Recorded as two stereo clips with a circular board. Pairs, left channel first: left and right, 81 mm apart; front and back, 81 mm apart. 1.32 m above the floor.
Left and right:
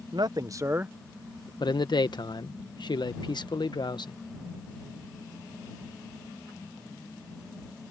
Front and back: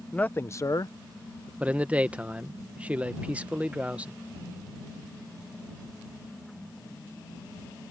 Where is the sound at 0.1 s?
70° right; by 1.5 s 10° left.